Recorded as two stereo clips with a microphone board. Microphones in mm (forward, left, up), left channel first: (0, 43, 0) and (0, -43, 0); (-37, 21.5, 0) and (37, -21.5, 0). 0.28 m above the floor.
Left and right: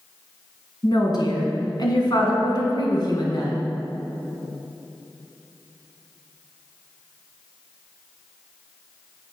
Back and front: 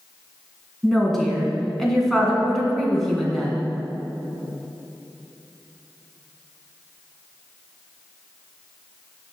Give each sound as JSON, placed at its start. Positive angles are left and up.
{"t": 0.8, "sound": "a woman speaking", "azimuth_deg": 65, "distance_m": 2.5}